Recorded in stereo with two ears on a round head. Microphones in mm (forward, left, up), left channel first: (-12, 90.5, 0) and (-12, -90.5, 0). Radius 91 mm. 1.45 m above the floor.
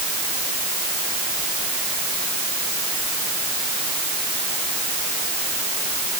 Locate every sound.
Only background noise.